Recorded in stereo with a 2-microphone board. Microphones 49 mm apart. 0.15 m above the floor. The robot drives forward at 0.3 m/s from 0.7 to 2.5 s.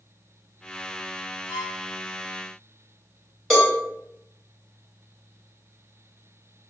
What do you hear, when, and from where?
1.5 s a violin: 40° right (ahead or behind), 0.7 m
3.5 s a cowbell: 5° left (ahead or behind), 1.5 m